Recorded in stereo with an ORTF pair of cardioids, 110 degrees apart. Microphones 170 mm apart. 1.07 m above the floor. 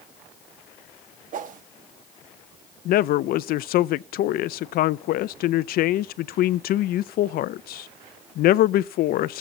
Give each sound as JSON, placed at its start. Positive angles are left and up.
{"t": 1.3, "sound": "a whoosh", "azimuth_deg": -50, "distance_m": 1.1}
{"t": 2.9, "sound": "a man speaking", "azimuth_deg": 65, "distance_m": 0.5}